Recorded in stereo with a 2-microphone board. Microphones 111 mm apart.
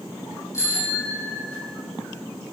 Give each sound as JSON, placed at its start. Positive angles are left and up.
{"t": 0.5, "sound": "a bicycle bell", "side_deg": 25, "distance_m": 9.0}